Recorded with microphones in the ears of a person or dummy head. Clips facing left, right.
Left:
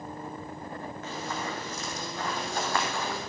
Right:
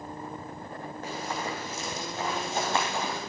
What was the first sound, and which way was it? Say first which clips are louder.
Running footsteps: right 2 dB; 30° right (ahead or behind).